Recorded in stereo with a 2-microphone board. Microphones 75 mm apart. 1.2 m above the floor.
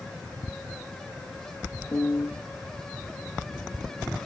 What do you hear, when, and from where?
1.9 s a piano: 35° left (ahead or behind), 0.8 m